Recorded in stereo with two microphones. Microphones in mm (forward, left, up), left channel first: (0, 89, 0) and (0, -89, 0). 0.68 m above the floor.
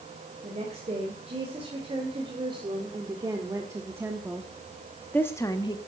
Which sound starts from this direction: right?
A woman speaking, at 0.4 s.